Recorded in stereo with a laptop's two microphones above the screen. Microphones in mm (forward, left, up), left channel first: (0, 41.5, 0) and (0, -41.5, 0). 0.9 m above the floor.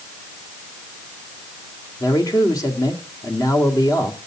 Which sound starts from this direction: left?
A man speaking, at 2.0 s.